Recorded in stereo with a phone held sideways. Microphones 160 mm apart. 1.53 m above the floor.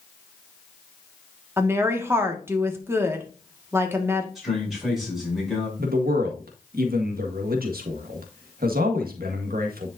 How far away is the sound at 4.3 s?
About 6.5 m.